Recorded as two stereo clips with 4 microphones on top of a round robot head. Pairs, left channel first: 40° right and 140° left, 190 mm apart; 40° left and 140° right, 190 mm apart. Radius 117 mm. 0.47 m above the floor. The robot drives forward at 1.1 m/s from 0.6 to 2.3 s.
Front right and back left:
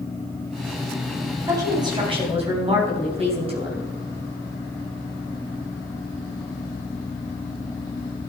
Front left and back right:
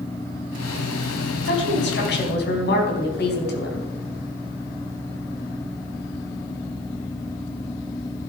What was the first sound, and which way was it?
A woman speaking, 65° left.